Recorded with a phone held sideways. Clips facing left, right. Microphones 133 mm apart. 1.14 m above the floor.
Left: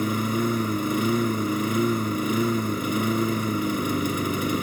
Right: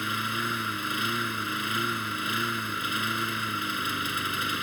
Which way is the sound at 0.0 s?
40° left (ahead or behind).